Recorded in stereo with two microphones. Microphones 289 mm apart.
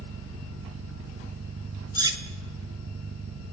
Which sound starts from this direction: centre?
Cutlery clinking, at 1.9 s.